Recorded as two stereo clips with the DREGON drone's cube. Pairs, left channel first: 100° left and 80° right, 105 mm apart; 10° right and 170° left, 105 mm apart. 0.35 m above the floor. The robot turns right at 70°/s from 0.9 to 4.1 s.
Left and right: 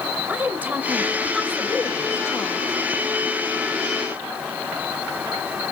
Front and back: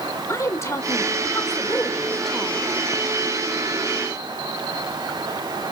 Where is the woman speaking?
25° right, 1.5 m; by 2.7 s 105° left, 1.5 m.